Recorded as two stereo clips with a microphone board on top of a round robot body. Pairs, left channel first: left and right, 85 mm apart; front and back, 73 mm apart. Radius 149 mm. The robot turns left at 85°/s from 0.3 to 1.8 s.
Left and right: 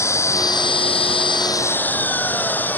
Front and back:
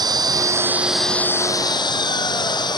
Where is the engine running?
150° left; by 2.8 s 20° left.